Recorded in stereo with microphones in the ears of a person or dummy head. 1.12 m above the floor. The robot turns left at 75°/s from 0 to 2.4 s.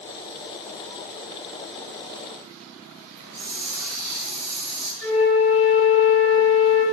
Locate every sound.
3.1 s a hiss: 35° right (ahead or behind), 1.1 m
5.0 s a flute: 65° left (ahead or behind), 1.4 m